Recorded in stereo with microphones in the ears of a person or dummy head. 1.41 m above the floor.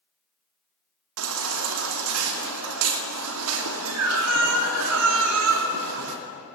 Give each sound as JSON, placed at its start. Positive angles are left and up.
{"t": 1.2, "sound": "a baby crying", "side_deg": -80, "distance_m": 2.0}